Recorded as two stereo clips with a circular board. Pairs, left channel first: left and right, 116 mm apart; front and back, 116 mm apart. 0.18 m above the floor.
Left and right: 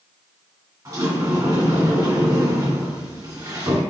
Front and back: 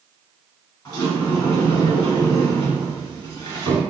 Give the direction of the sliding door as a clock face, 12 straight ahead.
2 o'clock.